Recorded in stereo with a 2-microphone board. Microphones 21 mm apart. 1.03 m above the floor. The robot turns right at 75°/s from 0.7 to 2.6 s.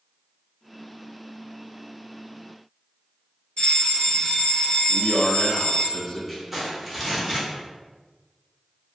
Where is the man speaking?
10° left (ahead or behind), 0.9 m.